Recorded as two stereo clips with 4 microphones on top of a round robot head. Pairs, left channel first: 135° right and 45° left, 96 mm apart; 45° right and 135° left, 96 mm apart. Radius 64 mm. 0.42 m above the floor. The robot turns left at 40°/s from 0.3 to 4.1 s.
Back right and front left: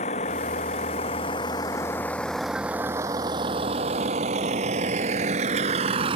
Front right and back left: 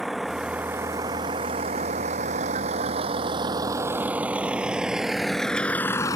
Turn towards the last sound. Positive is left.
turn(degrees=10)